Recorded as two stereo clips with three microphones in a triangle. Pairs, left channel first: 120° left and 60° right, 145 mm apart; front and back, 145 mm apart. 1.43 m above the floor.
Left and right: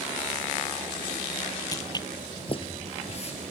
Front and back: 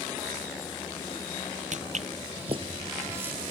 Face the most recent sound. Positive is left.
turn(degrees=100)